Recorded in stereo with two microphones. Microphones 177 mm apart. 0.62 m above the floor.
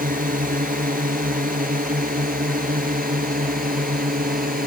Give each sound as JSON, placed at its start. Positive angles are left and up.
{"t": 0.0, "sound": "a drone", "side_deg": -55}